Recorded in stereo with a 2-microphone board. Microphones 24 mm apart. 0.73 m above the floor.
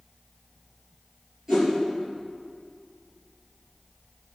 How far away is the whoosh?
About 4.5 m.